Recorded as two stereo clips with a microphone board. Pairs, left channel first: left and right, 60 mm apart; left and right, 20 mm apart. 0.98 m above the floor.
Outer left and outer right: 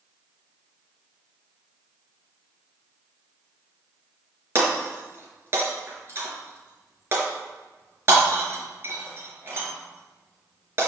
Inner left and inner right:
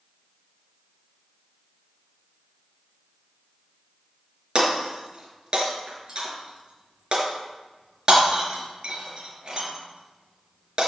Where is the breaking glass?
40° right (ahead or behind), 4 m.